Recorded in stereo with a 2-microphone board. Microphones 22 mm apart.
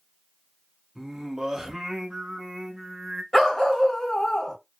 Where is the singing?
25° right (ahead or behind), 0.6 m.